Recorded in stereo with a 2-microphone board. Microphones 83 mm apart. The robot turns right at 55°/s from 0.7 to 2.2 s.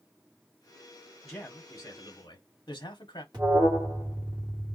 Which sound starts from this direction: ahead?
A man speaking, at 1.2 s.